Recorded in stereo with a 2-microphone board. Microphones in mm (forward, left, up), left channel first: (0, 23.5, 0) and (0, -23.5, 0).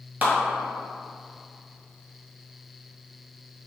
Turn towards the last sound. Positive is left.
turn(degrees=-35)  # may be behind; listen again after turning